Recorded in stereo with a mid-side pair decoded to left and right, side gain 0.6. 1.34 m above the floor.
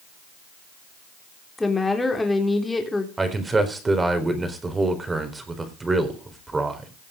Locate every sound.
1.6 s a woman speaking: 15° left, 3.5 m
3.2 s a man speaking: 20° right, 4 m